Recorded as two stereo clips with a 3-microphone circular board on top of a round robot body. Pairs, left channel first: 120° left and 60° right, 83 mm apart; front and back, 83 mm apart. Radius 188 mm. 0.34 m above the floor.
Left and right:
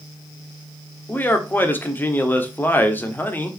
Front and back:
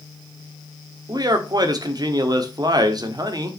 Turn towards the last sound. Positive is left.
turn(degrees=180)